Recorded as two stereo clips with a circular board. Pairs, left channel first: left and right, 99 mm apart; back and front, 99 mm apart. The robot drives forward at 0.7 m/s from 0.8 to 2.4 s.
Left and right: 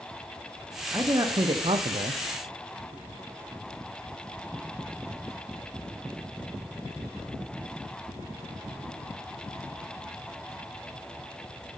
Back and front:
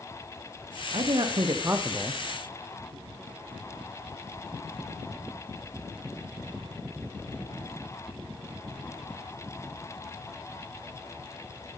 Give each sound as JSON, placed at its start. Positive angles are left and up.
{"t": 0.9, "sound": "a man speaking", "azimuth_deg": -30, "distance_m": 0.9}